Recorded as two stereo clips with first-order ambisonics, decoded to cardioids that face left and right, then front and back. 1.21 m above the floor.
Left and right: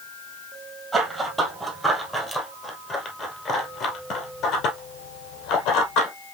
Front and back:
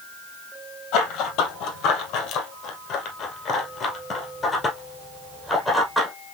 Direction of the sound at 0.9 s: 15° right.